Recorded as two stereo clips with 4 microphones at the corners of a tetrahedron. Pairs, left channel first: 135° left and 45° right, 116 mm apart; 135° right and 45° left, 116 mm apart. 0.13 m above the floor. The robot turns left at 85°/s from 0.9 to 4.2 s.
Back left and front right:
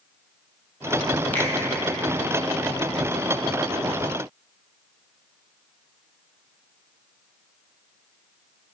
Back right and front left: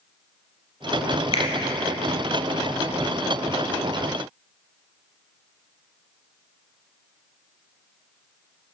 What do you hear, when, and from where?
1.3 s a finger snap: 150° right, 2.5 m; by 1.5 s 160° right, 2.5 m